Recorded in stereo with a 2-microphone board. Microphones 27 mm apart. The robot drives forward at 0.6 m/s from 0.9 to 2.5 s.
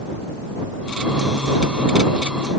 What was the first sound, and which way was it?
Only background noise.